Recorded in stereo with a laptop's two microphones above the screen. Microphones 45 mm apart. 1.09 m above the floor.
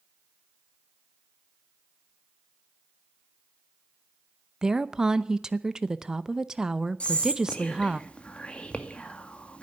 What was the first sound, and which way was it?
A woman speaking, 15° right (ahead or behind).